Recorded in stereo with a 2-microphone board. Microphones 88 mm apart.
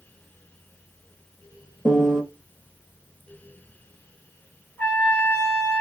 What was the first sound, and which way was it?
A piano, 10° left (ahead or behind).